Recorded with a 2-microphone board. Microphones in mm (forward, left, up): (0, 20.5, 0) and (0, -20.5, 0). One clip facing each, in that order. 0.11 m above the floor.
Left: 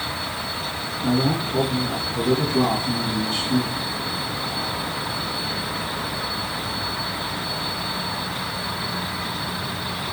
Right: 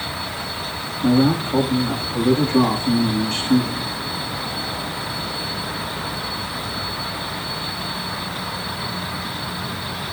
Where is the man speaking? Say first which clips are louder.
Right 5 dB; 65° right (ahead or behind), 5 m.